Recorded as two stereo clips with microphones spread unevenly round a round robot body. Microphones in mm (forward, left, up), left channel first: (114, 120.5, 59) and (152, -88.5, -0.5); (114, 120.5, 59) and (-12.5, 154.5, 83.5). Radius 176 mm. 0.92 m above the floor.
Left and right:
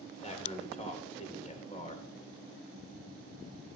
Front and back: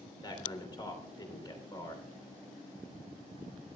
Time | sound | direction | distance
0.2 | a man speaking | 40° left | 3 m